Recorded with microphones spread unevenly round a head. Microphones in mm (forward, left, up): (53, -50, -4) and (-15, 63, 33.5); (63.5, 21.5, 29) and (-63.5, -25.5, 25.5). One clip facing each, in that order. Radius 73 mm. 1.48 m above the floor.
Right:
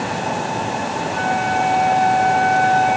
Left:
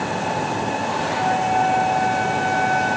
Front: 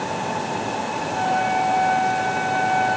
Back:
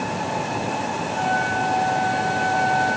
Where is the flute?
15° left, 2.5 m.